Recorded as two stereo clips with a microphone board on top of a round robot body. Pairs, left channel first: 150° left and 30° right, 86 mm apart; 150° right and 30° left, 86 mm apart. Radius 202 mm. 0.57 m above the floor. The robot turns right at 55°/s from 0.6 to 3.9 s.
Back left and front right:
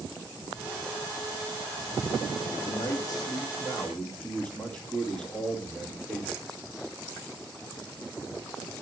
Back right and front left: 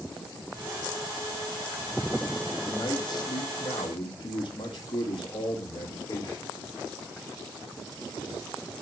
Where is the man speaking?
150° left, 2 m; by 6.5 s 140° right, 2 m.